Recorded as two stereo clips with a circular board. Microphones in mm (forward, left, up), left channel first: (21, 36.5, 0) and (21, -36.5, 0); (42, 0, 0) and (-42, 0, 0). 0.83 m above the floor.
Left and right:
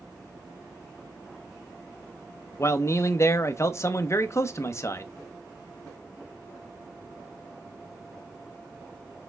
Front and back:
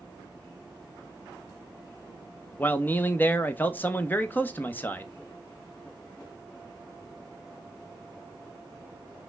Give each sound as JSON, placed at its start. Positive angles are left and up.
{"t": 2.6, "sound": "a man speaking", "azimuth_deg": 60, "distance_m": 0.5}